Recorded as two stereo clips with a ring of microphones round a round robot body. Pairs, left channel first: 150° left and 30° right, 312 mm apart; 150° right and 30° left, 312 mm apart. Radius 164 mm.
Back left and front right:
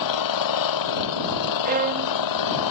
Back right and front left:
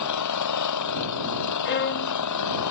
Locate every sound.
0.0 s an engine running: 175° left
1.6 s a violin: 95° right